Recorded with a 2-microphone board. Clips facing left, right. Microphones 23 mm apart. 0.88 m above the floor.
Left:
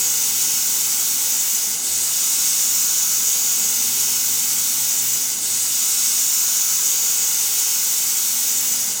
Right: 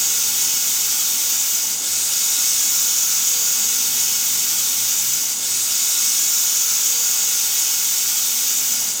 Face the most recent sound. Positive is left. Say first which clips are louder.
# right 1 dB
turn(degrees=-40)  # may be behind; listen again after turning